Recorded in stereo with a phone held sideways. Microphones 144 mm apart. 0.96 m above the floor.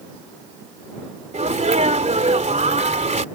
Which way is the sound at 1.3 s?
55° right (ahead or behind).